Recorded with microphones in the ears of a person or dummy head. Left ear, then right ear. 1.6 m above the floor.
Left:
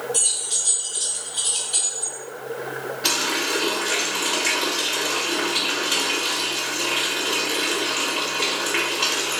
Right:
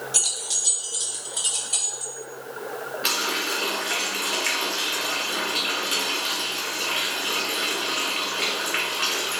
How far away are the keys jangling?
About 0.8 m.